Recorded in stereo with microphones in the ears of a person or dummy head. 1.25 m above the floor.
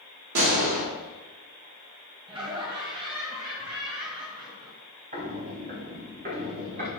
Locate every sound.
0.3 s a gunshot: 65° right (ahead or behind), 2 m
2.3 s laughter: 25° right (ahead or behind), 1.3 m
5.1 s footsteps: 40° right (ahead or behind), 2.5 m; by 6.9 s 45° right (ahead or behind), 5 m